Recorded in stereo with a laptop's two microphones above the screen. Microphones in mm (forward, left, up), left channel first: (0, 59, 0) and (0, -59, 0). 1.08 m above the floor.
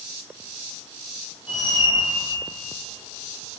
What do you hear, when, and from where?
1.5 s a squeak: 55° left (ahead or behind), 1.9 m